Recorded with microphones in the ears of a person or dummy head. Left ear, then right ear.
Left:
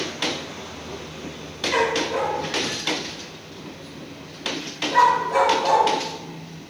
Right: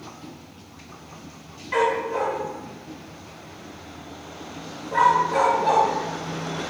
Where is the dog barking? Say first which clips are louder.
Even; 20° left (ahead or behind), 3 m.